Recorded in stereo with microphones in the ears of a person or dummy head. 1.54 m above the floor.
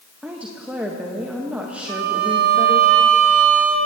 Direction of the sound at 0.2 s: 5° right (ahead or behind).